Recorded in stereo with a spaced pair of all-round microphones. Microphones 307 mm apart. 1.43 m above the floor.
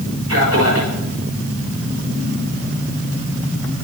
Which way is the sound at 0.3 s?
50° right (ahead or behind).